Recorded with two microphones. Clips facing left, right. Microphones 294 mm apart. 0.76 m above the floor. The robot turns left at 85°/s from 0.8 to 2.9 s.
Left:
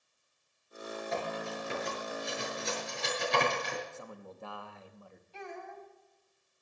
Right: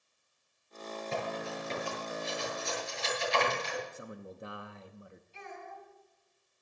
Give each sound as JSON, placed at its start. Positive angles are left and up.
{"t": 1.1, "sound": "cutlery clinking", "side_deg": -40, "distance_m": 7.5}
{"t": 3.9, "sound": "a man speaking", "side_deg": -20, "distance_m": 0.7}
{"t": 5.3, "sound": "a child speaking", "side_deg": 80, "distance_m": 4.5}